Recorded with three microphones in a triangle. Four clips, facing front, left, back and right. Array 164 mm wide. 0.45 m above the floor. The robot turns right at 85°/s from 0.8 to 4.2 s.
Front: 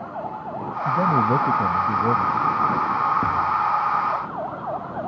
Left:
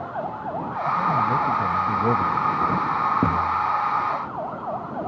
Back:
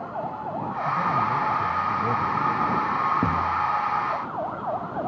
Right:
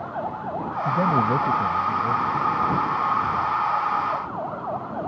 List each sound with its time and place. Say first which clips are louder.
0.8 s a man speaking: right 1 dB, front 5 dB; 55° right; by 2.4 s 75° left
3.2 s a thud: left 1 dB, front 3 dB; 100° left; by 5.1 s 175° right